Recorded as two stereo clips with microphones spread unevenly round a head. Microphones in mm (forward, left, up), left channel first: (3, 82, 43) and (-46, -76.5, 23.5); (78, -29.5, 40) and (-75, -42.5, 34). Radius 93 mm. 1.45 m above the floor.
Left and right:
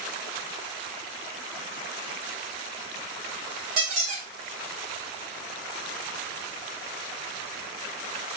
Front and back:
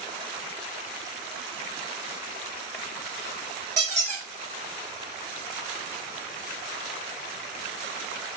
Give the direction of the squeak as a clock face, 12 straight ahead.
5 o'clock.